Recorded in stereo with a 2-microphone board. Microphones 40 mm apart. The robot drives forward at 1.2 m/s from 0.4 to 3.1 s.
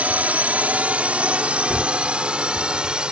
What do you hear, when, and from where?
0.0 s a drone: 40° right (ahead or behind); by 3.1 s 25° right (ahead or behind)
1.7 s a gunshot: 10° left (ahead or behind)